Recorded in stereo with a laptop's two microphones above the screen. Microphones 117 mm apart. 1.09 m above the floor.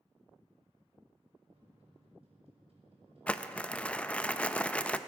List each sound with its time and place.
1.5 s a microwave: 60° right (ahead or behind), 5.5 m
3.3 s crumpling: 10° left (ahead or behind), 0.6 m